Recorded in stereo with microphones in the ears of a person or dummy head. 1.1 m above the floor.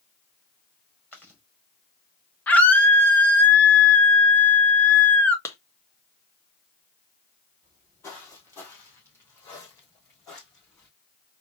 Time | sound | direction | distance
1.1 | chewing | 10° left (ahead or behind) | 2 m
2.5 | a scream | 10° left (ahead or behind) | 0.8 m
5.5 | a clap | 15° left (ahead or behind) | 0.9 m
7.6 | footsteps | 15° left (ahead or behind) | 1.6 m